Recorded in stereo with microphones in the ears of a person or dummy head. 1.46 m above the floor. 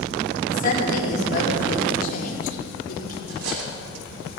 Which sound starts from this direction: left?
A woman speaking, at 0.5 s.